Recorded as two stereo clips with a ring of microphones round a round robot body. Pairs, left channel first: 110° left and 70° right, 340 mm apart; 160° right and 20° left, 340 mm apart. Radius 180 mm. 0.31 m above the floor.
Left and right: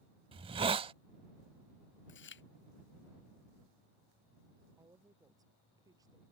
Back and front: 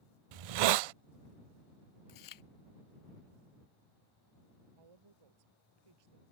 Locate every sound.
0.3 s a hiss: 10° left
2.1 s chewing: 170° left
4.8 s a woman speaking: 15° left